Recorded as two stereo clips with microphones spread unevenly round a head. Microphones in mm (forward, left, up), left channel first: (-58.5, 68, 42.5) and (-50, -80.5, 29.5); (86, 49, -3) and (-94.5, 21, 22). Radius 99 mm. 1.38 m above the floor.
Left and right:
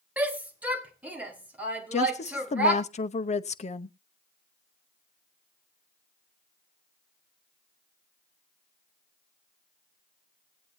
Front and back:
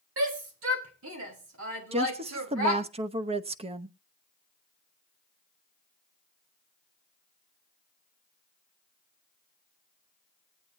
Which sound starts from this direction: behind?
A shout, at 0.2 s.